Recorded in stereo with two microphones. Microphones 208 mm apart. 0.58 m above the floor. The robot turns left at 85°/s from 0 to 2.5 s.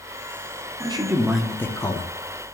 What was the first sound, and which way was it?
A man speaking, 130° right.